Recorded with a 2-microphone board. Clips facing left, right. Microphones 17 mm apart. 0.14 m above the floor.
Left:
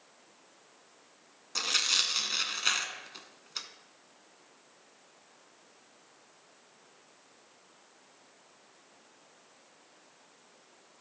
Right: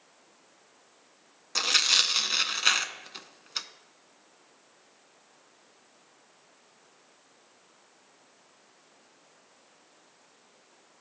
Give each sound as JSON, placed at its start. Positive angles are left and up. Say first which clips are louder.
{"t": 1.6, "sound": "tearing paper", "louder": "right 5 dB", "side_deg": -20, "distance_m": 0.6}